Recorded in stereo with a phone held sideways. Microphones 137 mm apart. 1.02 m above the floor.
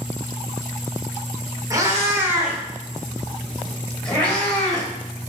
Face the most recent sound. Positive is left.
turn(degrees=15)  # may be behind; listen again after turning